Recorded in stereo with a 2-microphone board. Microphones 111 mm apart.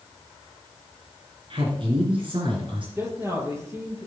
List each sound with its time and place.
1.5 s a man speaking: 50° right (ahead or behind), 1.8 m
3.0 s a man speaking: 25° right (ahead or behind), 3.5 m